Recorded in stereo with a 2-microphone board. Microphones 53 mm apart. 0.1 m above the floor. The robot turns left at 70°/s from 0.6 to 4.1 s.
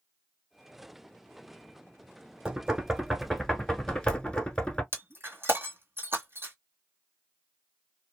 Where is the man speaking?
No man speaking in this recording.